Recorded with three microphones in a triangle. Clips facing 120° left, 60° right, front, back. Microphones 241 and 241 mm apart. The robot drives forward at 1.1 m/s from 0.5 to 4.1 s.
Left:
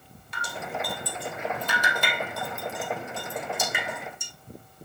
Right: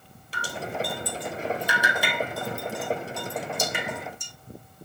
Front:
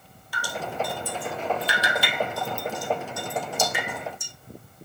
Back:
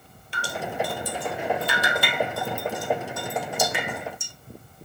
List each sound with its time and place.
0.3 s dripping: 115° right, 2 m; by 4.3 s 160° right, 5 m